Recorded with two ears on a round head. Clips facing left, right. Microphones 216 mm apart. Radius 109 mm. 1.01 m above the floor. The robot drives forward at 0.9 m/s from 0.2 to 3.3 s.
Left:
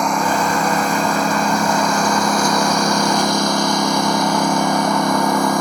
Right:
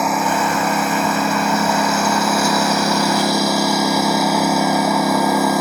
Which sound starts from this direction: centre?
A lawn mower, at 0.0 s.